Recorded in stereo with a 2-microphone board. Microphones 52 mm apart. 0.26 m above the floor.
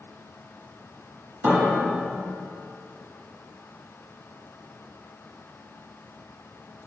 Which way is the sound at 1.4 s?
40° right (ahead or behind).